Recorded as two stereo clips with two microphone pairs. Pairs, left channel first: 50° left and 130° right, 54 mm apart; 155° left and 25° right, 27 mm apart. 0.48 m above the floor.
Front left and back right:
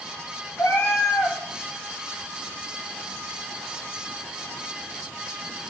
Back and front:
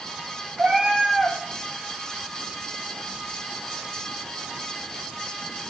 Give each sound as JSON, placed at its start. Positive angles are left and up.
{"t": 0.6, "sound": "a cat meowing", "azimuth_deg": 20, "distance_m": 1.4}